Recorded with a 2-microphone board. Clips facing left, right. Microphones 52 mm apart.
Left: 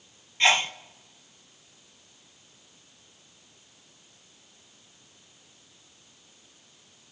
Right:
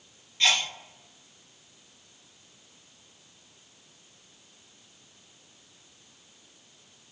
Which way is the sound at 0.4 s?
25° left (ahead or behind).